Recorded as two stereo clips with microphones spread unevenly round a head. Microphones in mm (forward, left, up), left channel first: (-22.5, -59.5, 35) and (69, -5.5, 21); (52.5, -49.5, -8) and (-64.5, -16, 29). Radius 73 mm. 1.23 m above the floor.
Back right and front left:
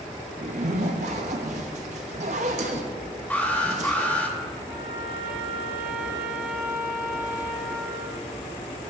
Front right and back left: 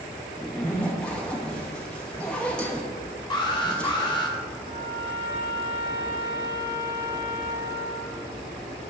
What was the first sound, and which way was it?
A zipper, 70° left.